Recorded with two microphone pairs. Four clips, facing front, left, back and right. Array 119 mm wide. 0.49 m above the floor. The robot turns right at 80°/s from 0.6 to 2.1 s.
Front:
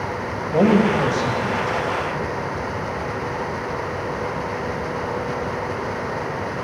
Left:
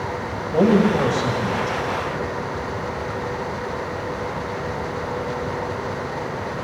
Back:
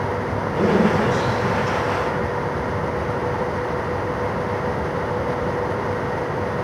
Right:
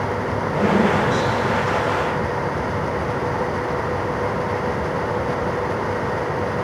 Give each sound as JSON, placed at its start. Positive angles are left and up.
{"t": 0.5, "sound": "a man speaking", "azimuth_deg": 30, "distance_m": 2.5}